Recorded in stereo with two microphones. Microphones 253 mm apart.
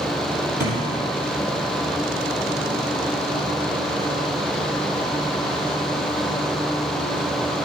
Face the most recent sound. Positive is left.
turn(degrees=-45)  # may be behind; listen again after turning